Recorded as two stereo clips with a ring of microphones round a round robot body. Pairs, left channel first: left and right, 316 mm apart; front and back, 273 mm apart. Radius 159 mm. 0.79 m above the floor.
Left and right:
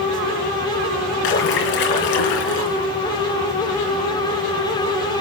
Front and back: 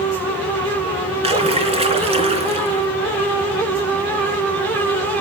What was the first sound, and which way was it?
A splash, 110° left.